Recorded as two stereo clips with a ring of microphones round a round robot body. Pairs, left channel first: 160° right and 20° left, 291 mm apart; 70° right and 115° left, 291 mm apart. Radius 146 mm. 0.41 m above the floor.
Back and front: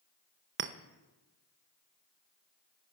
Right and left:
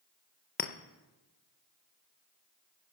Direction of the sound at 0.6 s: 15° right.